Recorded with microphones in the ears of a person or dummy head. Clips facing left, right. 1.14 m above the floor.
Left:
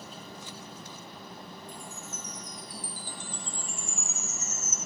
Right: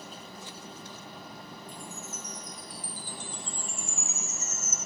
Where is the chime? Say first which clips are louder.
Right 1 dB; 30° left (ahead or behind), 1.4 m.